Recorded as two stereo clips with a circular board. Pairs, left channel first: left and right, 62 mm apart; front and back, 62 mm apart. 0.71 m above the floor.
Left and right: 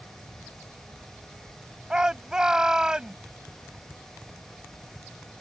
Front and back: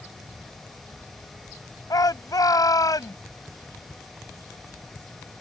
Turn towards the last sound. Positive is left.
turn(degrees=-10)